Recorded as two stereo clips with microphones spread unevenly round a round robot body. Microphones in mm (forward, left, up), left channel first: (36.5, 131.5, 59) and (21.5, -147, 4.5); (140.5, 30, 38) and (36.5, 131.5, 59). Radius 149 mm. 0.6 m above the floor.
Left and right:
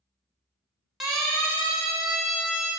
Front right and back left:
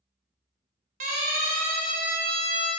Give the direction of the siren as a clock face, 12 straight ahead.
6 o'clock.